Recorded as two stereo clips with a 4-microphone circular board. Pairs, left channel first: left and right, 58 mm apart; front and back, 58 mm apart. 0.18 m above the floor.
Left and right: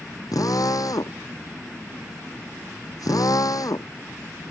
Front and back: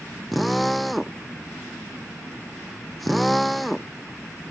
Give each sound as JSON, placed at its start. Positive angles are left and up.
{"t": 0.3, "sound": "a drill", "azimuth_deg": 90}